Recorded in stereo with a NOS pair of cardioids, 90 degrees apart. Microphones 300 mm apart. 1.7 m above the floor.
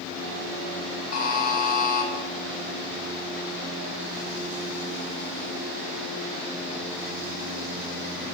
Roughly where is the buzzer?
Ahead left.